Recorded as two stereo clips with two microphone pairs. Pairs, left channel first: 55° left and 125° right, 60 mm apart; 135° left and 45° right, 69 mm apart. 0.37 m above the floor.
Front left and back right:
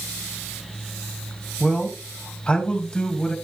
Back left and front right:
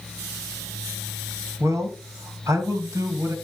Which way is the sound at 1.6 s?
15° right.